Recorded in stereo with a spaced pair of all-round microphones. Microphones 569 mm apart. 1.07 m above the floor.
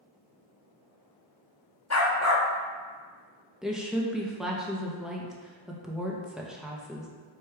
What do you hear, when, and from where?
1.9 s a dog barking: 30° left (ahead or behind), 0.6 m
3.6 s a woman speaking: centre (ahead or behind), 0.6 m